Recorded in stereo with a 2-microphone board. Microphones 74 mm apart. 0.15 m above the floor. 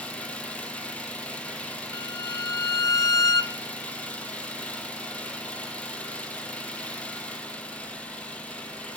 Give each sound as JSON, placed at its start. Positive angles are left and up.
{"t": 0.0, "sound": "an engine running", "side_deg": 20, "distance_m": 1.3}
{"t": 1.9, "sound": "a violin", "side_deg": 55, "distance_m": 0.5}